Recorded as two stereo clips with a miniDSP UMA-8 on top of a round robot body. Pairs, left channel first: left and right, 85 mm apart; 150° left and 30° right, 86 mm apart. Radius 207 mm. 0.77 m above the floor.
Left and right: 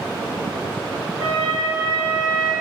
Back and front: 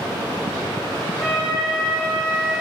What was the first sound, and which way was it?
A flute, 115° right.